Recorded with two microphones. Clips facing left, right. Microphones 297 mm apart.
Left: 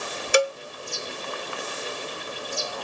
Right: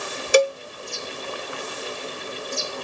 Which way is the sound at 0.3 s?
45° right (ahead or behind).